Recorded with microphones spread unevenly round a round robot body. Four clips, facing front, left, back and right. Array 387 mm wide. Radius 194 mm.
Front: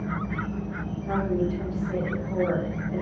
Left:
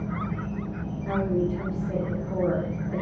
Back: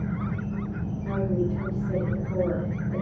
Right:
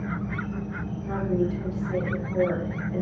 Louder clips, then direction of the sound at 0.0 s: Even, front 1 dB; 170° left.